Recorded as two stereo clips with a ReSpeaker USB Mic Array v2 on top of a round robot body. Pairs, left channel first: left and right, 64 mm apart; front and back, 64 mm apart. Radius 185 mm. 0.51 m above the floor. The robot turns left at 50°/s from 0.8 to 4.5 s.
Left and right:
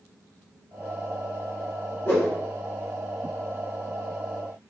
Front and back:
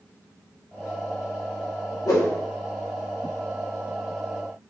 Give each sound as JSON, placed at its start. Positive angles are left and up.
{"t": 2.0, "sound": "a whoosh", "azimuth_deg": 35, "distance_m": 0.5}